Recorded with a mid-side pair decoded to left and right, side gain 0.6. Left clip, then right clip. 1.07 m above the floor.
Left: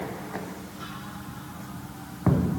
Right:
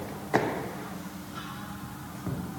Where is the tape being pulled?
I don't hear tape being pulled.